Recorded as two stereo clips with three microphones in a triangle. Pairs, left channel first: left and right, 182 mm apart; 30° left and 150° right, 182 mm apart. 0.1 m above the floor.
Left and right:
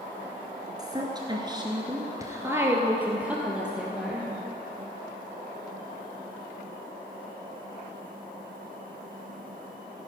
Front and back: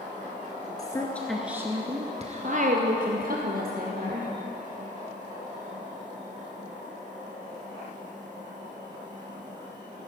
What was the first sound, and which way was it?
A woman speaking, 30° right.